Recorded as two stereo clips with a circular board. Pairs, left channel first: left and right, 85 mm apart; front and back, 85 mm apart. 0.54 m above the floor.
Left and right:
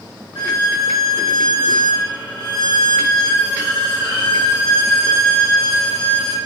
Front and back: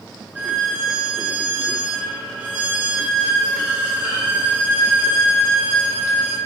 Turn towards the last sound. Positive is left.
turn(degrees=110)